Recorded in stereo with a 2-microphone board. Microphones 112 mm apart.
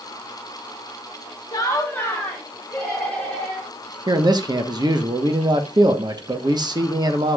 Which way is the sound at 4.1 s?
40° right (ahead or behind).